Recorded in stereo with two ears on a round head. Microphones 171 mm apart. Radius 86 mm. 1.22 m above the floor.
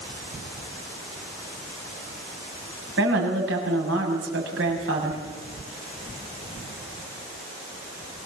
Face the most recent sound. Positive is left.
turn(degrees=-75)  # may be behind; listen again after turning